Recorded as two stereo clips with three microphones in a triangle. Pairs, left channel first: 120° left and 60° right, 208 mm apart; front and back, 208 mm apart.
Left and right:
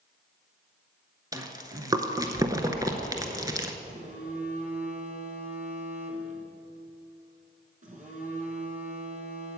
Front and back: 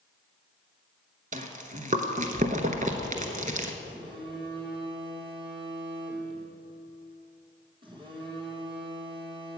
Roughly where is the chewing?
Behind right.